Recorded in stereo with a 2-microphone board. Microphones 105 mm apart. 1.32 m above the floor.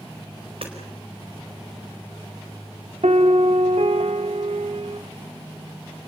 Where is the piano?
80° right, 1.0 m.